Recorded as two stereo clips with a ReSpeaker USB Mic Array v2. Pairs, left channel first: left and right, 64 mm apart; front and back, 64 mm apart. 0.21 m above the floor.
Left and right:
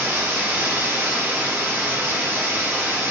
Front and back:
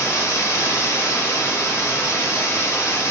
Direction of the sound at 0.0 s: 35° right.